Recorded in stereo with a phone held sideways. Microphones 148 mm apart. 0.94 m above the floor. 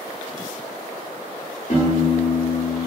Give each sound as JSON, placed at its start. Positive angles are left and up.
{"t": 1.7, "sound": "a piano", "side_deg": 60, "distance_m": 1.7}